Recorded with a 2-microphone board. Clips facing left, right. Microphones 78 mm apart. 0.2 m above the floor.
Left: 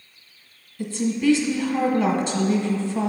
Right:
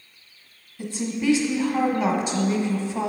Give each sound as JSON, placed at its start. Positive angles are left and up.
{"t": 0.8, "sound": "a woman speaking", "side_deg": -15, "distance_m": 1.1}